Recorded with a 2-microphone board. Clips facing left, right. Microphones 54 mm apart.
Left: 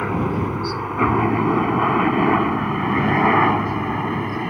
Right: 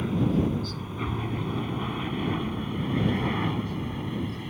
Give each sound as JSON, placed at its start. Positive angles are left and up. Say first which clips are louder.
{"t": 0.0, "sound": "a helicopter", "louder": "left 4 dB", "side_deg": 55}